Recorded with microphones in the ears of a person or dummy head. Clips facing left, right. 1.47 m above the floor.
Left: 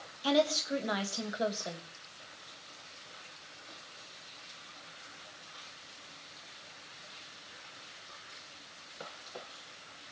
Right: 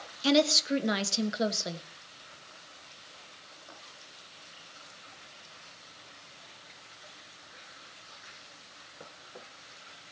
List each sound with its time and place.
0.2 s a woman speaking: 30° right (ahead or behind), 1.3 m